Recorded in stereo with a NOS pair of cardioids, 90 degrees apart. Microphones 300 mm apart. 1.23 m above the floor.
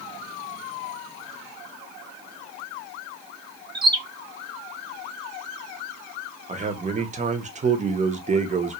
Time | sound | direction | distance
3.8 | a bird | 15° right | 0.7 m
6.5 | a man speaking | 25° right | 0.7 m